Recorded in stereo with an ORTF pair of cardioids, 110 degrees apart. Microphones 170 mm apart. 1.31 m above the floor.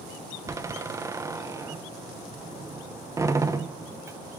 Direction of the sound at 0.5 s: 15° right.